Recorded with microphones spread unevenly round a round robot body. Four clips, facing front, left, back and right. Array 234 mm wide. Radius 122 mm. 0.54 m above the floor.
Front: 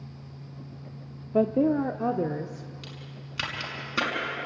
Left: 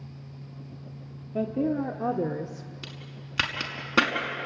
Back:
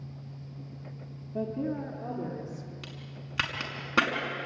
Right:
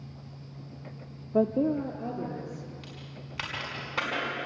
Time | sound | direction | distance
1.3 | a woman speaking | 25° right | 1.0 m
2.8 | a crack | 110° left | 5.5 m